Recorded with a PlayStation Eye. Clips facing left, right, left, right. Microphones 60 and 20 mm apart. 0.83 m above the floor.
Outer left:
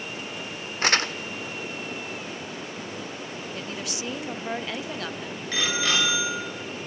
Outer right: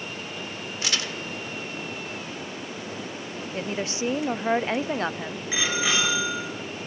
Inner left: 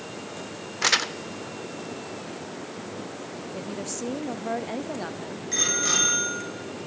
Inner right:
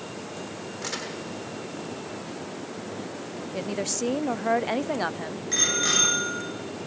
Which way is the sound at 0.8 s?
45° left (ahead or behind).